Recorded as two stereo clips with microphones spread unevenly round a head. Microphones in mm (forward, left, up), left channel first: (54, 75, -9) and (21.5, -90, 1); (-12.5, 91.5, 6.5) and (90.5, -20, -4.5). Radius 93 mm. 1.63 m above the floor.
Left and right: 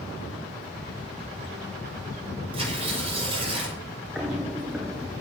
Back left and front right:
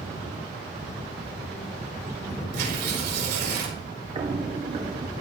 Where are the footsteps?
20° right, 1.9 m.